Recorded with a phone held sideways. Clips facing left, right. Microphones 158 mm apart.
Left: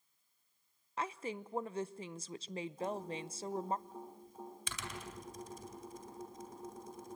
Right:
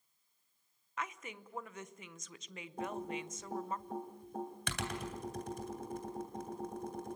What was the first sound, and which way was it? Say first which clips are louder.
A woman speaking: left 4 dB; 30° left (ahead or behind).